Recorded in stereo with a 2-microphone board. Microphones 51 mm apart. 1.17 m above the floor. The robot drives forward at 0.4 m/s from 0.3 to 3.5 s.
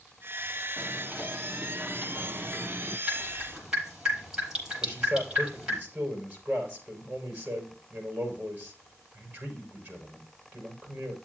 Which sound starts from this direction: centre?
Dripping, at 3.1 s.